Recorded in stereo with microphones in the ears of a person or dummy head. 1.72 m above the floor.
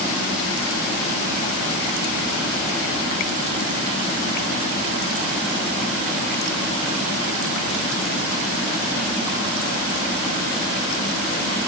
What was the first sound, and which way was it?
Only background noise.